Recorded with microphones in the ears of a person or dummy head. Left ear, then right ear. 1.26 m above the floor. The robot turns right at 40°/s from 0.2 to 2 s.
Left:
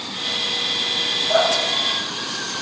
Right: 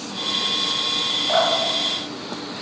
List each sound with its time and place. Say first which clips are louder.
1.3 s dripping: left 1 dB; 60° right (ahead or behind), 3 m; by 2.6 s 85° right, 3 m